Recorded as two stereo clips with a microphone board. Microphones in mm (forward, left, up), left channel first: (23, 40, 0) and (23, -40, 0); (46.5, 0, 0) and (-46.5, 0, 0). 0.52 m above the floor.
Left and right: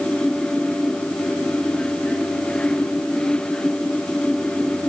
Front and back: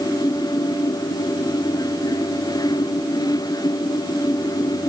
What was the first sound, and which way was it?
Only background noise.